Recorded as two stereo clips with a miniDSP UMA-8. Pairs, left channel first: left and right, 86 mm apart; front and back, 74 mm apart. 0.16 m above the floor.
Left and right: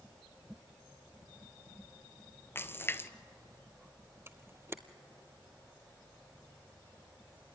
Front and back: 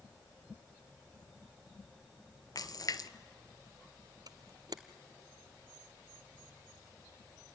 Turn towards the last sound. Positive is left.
turn(degrees=-150)